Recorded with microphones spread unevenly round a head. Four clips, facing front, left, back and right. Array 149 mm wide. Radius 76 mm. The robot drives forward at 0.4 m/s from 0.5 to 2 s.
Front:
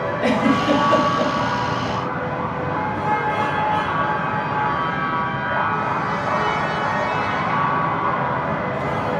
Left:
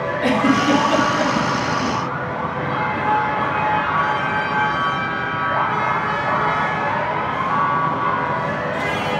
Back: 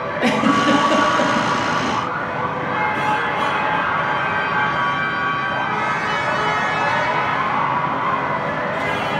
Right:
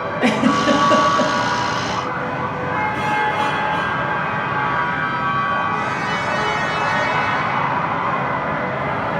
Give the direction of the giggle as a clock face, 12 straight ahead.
4 o'clock.